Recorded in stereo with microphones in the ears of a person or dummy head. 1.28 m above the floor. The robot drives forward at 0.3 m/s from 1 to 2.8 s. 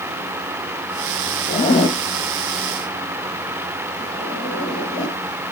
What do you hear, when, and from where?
1.5 s a zipper: 30° left (ahead or behind), 0.9 m; by 5.2 s 20° left (ahead or behind), 1.2 m